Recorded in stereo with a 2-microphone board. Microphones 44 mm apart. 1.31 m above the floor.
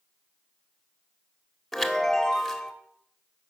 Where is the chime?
Centre (ahead or behind), 1.3 m.